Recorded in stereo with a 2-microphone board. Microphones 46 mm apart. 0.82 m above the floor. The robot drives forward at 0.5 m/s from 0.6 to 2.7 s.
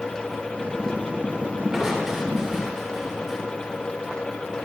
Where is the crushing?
10° right (ahead or behind), 2.5 m.